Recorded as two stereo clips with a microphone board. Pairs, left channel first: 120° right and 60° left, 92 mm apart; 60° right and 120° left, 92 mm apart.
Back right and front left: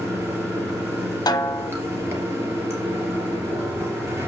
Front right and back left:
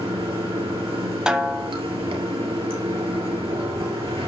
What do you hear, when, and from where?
0.0 s running water: 125° left, 3 m
1.3 s a snare drum: 160° right, 0.8 m